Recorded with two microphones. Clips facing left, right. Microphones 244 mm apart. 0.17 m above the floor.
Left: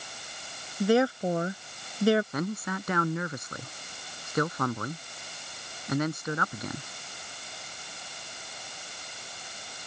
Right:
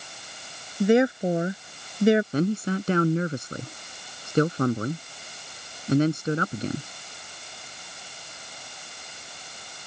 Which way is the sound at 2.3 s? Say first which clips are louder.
Right 8 dB; 35° right (ahead or behind).